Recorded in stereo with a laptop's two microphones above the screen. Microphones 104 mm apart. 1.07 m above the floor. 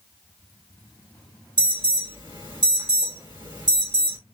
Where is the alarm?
50° right (ahead or behind), 1.7 m.